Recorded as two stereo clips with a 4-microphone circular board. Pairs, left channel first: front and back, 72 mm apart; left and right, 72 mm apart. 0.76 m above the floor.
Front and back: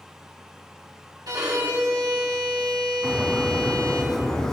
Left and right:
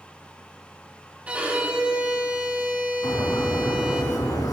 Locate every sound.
1.3 s a violin: 160° right, 2 m
3.0 s a bird: 80° left, 2.5 m